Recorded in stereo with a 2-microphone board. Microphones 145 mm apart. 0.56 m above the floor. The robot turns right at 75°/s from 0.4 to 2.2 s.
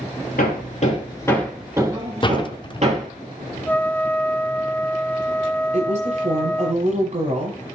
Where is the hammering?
85° left, 3.5 m; by 3.1 s 50° right (ahead or behind), 3.5 m.